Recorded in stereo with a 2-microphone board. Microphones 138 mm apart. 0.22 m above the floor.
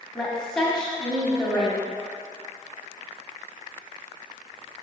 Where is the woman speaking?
5° left (ahead or behind), 1.1 m.